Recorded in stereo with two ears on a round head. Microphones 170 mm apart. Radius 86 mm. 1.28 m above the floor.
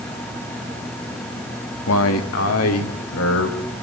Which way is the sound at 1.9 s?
90° left.